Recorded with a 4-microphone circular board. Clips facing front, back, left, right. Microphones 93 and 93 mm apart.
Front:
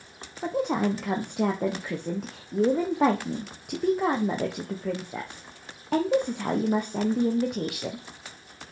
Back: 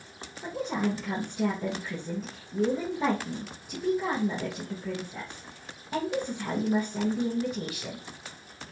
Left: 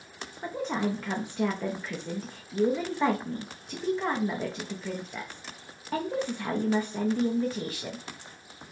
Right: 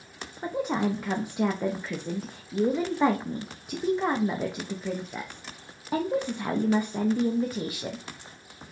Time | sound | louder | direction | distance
0.4 | a woman speaking | front 4 dB, right 3 dB | 15° right | 0.8 m